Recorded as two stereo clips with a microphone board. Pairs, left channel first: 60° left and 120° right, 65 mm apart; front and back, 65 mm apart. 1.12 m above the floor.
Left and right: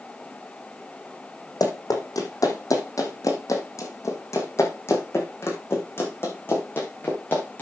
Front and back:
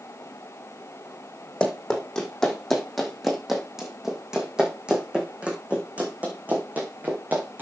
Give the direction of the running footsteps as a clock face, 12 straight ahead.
9 o'clock.